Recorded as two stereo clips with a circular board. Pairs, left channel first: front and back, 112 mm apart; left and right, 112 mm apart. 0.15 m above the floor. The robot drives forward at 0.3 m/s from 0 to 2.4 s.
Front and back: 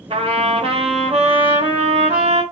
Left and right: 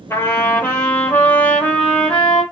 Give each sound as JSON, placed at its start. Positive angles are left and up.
{"t": 0.1, "sound": "a trumpet", "azimuth_deg": 155, "distance_m": 0.6}